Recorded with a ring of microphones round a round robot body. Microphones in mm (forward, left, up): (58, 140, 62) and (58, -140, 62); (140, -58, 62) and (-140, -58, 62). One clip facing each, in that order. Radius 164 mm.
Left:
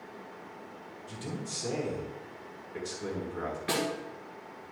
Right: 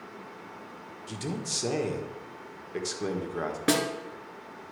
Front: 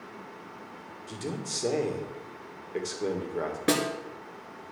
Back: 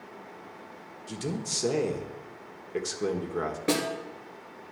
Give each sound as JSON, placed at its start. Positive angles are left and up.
{"t": 1.1, "sound": "a man speaking", "azimuth_deg": -110, "distance_m": 1.5}
{"t": 3.7, "sound": "a snare drum", "azimuth_deg": -65, "distance_m": 1.5}